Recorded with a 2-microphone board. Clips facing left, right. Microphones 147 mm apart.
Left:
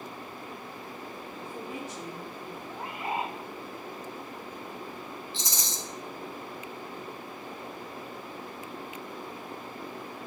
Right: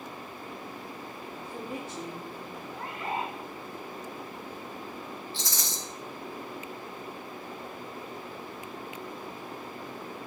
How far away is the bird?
About 0.7 m.